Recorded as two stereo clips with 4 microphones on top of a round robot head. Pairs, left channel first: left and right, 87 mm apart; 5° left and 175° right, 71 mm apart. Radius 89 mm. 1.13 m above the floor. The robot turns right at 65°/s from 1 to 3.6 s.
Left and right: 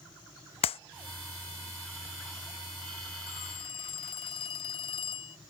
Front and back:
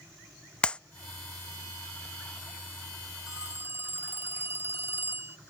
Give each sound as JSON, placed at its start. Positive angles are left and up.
{"t": 0.6, "sound": "a clap", "azimuth_deg": 80}
{"t": 3.3, "sound": "a phone ringing", "azimuth_deg": 105}